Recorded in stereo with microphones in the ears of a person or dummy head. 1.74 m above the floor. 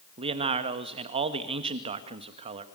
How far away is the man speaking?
About 1.9 m.